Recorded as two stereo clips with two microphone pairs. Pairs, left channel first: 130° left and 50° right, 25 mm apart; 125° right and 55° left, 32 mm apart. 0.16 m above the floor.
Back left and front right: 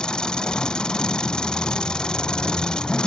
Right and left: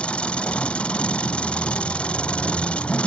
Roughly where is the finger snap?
No finger snap in this recording.